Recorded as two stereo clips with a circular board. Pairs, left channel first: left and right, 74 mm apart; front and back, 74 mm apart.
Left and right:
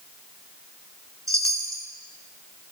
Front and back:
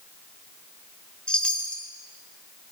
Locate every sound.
1.3 s a chime: 75° right, 1.5 m